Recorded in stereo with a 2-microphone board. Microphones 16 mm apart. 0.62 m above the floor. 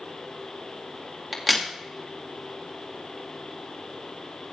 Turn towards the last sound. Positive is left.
turn(degrees=0)  # may be behind; listen again after turning